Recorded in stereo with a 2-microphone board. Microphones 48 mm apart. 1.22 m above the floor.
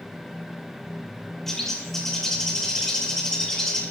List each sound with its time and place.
1.5 s a bird: 10° left (ahead or behind), 2.5 m